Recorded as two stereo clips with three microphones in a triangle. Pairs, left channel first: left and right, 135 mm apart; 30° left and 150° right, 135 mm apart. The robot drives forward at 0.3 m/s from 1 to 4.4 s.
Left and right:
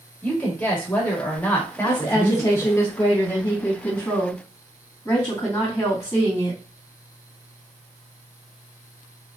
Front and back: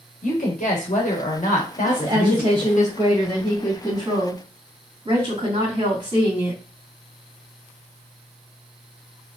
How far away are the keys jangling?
No keys jangling in this recording.